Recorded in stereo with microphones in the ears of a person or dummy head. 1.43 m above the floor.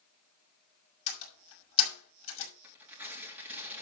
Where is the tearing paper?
5° right (ahead or behind), 3 m.